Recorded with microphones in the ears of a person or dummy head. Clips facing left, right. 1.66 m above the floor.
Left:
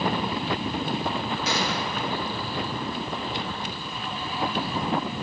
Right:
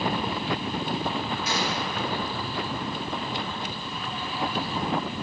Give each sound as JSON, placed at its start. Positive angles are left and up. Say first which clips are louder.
{"t": 1.4, "sound": "a gunshot", "louder": "left 1 dB", "side_deg": 60, "distance_m": 2.5}